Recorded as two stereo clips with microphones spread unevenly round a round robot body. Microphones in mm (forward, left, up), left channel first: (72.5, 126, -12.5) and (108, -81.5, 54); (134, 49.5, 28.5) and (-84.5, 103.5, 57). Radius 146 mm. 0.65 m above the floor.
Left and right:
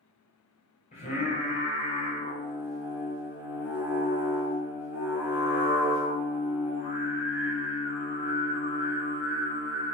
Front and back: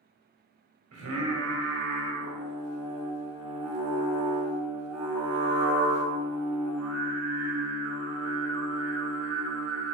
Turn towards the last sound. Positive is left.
turn(degrees=155)